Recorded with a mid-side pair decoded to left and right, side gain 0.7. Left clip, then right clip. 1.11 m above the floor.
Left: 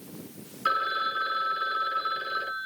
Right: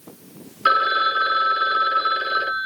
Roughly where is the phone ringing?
Ahead right.